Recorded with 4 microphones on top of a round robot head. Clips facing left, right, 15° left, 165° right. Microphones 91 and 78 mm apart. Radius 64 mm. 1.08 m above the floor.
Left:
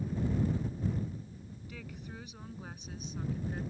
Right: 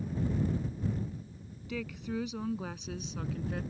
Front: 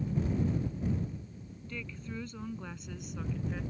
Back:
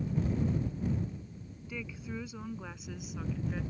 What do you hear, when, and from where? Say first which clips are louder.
1.7 s a woman speaking: right 12 dB, back 1 dB; 85° right; by 3.6 s 80° right